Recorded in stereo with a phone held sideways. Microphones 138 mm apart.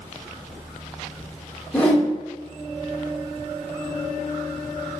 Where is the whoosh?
10° left (ahead or behind), 0.9 m.